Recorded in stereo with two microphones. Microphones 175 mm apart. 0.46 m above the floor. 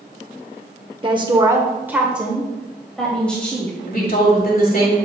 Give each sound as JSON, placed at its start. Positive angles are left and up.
{"t": 1.0, "sound": "a woman speaking", "side_deg": -30, "distance_m": 0.9}
{"t": 3.9, "sound": "a woman speaking", "side_deg": 60, "distance_m": 2.5}